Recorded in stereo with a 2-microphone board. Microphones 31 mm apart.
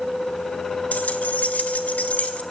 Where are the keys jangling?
75° left (ahead or behind), 2 m; by 2.4 s 60° left (ahead or behind), 2.5 m.